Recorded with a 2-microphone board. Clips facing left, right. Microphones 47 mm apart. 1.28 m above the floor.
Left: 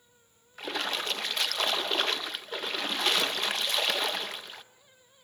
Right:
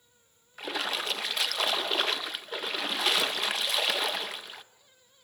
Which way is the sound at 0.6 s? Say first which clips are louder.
Even; 5° right (ahead or behind).